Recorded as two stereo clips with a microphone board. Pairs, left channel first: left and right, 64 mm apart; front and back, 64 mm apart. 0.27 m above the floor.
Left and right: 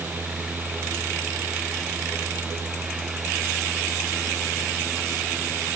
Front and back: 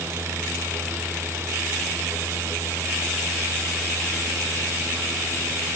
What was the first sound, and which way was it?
Only background noise.